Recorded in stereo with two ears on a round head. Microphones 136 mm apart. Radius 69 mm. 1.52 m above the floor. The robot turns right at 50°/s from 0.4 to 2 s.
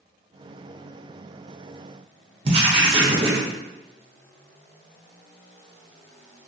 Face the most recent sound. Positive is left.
turn(degrees=-35)  # may be behind; listen again after turning